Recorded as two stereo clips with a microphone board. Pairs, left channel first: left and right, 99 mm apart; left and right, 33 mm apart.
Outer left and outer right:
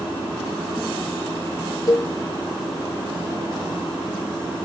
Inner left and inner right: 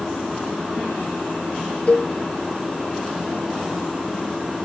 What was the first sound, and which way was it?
A cowbell, 40° left (ahead or behind).